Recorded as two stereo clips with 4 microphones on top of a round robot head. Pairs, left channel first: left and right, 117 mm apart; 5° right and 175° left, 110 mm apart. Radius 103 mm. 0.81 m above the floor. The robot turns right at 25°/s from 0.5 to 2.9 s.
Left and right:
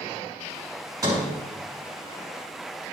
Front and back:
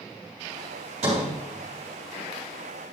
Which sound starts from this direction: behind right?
A sliding door, at 1.0 s.